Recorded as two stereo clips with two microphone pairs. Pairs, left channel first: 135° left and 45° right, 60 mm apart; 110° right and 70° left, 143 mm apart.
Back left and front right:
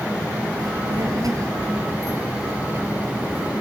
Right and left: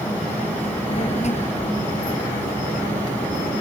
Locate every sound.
0.6 s a child speaking: 60° right, 4 m; by 3.5 s 100° right, 4.5 m